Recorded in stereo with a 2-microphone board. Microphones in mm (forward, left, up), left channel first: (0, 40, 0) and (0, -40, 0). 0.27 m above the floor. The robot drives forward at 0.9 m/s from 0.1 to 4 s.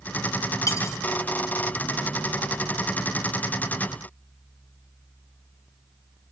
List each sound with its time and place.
0.7 s cutlery clinking: 45° left (ahead or behind), 1.4 m; by 1.0 s 40° left (ahead or behind), 1.6 m